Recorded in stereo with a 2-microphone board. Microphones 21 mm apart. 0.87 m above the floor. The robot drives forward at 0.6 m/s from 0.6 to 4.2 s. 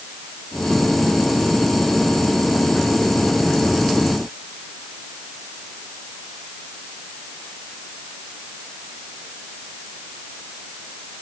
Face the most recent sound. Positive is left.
No sound to turn to.